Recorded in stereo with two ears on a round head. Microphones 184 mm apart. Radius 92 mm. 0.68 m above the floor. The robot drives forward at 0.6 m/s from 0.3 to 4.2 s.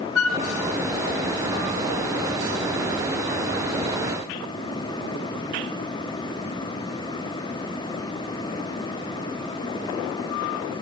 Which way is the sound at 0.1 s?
75° left (ahead or behind).